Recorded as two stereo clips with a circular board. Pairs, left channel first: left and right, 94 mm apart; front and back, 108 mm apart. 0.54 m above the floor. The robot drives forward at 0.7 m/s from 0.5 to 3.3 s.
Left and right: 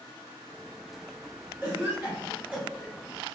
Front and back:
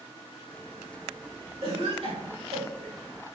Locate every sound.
1.6 s a cough: 160° right, 2 m; by 3.0 s 165° right, 3 m